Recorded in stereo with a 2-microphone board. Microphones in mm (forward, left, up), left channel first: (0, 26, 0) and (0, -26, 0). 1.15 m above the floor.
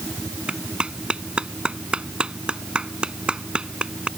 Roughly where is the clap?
Right.